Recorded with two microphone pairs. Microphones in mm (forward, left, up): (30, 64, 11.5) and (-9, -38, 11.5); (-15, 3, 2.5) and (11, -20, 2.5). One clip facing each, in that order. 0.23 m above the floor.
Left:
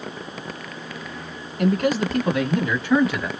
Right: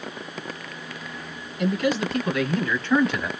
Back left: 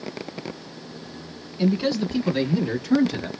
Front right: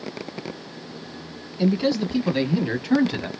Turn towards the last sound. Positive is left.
turn(degrees=-25)